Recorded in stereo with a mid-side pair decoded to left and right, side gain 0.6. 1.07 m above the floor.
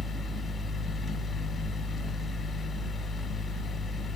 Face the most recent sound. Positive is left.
turn(degrees=30)